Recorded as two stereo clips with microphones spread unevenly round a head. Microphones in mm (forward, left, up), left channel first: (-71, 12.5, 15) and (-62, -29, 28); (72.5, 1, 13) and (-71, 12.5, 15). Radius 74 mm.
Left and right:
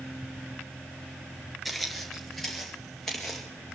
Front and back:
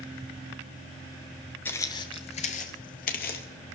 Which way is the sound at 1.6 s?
55° right.